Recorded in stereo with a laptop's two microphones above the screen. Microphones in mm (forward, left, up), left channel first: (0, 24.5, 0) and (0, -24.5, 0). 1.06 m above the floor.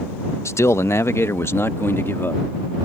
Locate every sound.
0.5 s a man speaking: 70° left (ahead or behind); by 2.4 s 55° left (ahead or behind)